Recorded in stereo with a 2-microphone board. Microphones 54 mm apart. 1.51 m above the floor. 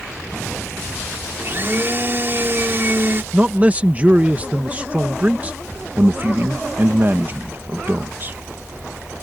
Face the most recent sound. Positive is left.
turn(degrees=-40)  # may be behind; listen again after turning